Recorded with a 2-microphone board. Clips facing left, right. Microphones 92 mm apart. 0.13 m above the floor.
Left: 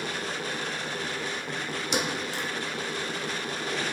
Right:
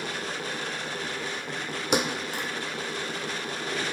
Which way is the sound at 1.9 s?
60° right (ahead or behind).